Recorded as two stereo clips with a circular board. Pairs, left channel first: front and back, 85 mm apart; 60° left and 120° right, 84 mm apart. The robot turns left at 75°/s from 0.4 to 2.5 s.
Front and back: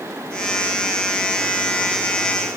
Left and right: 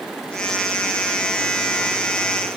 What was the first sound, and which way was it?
Only background noise.